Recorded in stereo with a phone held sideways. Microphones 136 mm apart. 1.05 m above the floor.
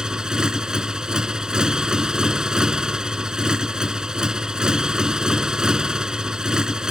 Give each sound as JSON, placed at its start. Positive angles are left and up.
{"t": 0.0, "sound": "a motorcycle", "side_deg": -5}